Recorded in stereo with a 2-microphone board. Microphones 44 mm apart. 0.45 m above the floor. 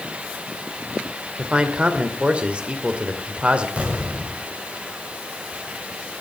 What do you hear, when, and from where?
1.4 s a man speaking: 30° right (ahead or behind), 1.8 m
3.8 s an explosion: 35° right (ahead or behind), 2.5 m